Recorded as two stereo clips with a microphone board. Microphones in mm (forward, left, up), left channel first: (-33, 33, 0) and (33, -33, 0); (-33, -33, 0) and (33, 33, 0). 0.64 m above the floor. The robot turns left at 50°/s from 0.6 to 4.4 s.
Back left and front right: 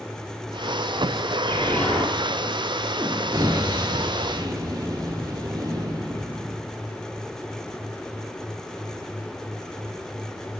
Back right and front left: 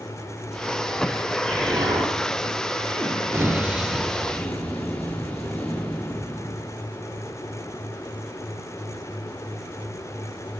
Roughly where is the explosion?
Left.